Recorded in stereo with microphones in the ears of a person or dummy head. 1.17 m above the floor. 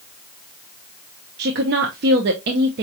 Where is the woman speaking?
60° right (ahead or behind), 0.8 m.